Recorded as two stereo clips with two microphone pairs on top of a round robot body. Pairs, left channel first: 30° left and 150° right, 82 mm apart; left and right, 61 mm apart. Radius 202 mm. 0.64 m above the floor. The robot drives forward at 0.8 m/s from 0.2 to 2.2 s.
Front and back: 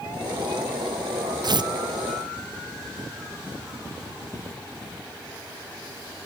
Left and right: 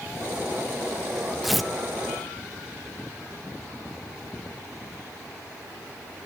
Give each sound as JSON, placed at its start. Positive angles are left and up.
{"t": 1.4, "sound": "tearing paper", "azimuth_deg": -175, "distance_m": 0.5}